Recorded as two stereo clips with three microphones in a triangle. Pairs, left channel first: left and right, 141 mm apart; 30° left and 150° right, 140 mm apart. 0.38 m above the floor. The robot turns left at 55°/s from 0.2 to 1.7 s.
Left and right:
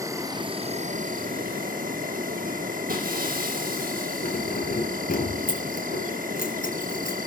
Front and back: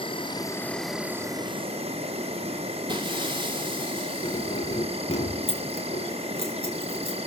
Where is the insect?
25° right, 1.7 m; by 7.3 s 105° right, 1.7 m.